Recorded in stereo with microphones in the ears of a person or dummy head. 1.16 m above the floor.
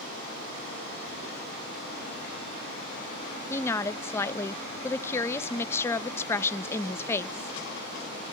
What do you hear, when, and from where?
3.5 s a woman speaking: 15° left (ahead or behind), 0.8 m